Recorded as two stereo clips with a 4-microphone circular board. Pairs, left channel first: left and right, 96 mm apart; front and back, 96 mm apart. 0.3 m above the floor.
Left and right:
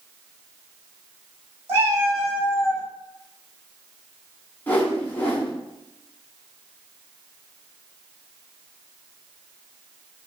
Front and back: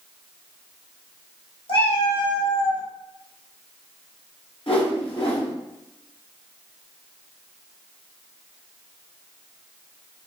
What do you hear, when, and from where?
1.7 s a cat meowing: 25° right, 1.2 m; by 2.8 s 40° right, 0.6 m
4.7 s a whoosh: 20° left, 0.9 m